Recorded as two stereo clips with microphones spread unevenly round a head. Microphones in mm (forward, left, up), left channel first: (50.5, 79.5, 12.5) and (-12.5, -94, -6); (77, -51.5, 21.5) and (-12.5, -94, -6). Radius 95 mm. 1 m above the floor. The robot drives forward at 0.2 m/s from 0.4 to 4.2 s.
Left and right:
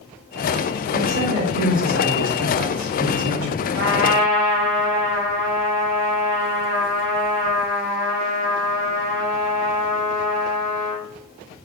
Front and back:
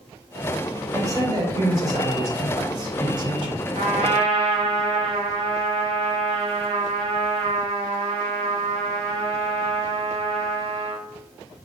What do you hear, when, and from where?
0.9 s a man speaking: 100° right, 2 m; by 3.6 s 115° right, 2 m
3.8 s a trumpet: 145° right, 1.1 m; by 11.1 s 150° right, 1.2 m